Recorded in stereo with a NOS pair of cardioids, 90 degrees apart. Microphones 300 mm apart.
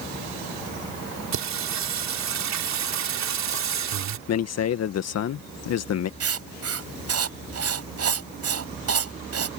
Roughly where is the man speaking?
Ahead left.